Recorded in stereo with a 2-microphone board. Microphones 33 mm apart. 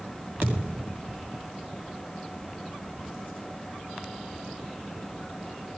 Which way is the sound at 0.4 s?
80° right.